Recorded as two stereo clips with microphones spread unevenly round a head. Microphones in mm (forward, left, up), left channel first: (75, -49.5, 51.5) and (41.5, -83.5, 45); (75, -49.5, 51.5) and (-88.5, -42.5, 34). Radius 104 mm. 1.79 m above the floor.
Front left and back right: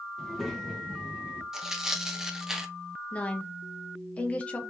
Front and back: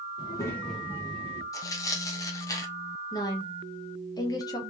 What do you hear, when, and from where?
0.2 s a child speaking: 30° right, 1.0 m; by 1.4 s 155° left, 0.9 m
1.5 s tearing paper: 55° right, 0.8 m
3.1 s a woman speaking: 35° left, 0.6 m